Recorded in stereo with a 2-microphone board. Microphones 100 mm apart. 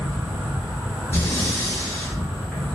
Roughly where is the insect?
Centre.